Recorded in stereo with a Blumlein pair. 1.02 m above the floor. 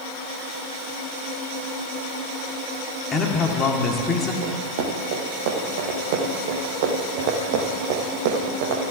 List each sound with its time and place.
3.1 s a man speaking: 20° left, 2.0 m
4.4 s running footsteps: 50° right, 3 m